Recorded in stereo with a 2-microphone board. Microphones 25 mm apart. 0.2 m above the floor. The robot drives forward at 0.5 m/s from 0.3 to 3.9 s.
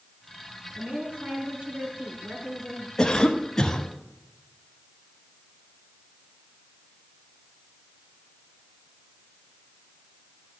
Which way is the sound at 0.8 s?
55° right (ahead or behind).